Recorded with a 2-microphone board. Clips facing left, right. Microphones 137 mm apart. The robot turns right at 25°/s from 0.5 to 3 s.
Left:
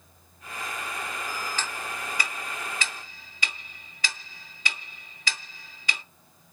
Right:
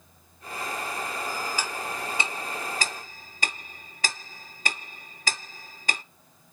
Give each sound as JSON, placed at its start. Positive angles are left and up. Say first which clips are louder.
{"t": 1.6, "sound": "ticking", "louder": "right 2 dB", "side_deg": -10, "distance_m": 0.5}